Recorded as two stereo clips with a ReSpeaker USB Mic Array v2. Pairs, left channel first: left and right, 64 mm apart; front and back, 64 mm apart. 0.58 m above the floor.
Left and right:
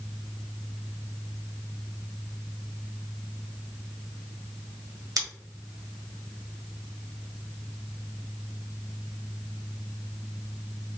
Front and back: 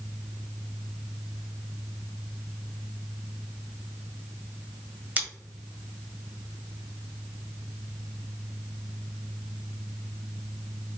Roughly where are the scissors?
Behind right.